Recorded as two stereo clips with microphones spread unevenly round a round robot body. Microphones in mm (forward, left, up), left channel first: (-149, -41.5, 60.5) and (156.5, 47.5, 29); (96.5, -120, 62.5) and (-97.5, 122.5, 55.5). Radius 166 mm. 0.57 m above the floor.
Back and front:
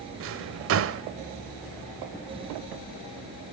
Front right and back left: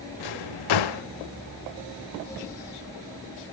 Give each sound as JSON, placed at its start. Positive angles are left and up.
{"t": 0.2, "sound": "a drawer", "azimuth_deg": -35, "distance_m": 0.7}